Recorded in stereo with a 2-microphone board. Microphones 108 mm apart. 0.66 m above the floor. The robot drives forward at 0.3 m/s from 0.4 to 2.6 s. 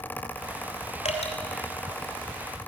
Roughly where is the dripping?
Left.